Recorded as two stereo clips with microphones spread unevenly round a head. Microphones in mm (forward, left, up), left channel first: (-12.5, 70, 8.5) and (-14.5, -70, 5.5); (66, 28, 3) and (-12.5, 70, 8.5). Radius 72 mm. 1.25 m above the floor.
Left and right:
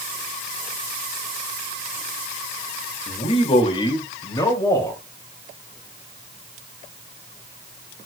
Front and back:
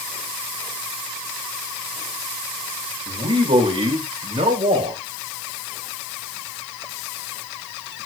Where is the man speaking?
135° left, 2.5 m; by 5.0 s 160° left, 3 m.